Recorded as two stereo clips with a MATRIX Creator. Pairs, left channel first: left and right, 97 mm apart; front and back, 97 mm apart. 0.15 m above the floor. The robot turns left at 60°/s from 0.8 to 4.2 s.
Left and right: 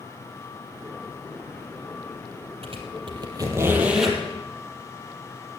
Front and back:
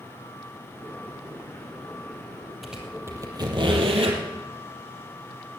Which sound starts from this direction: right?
A squeak, at 2.6 s.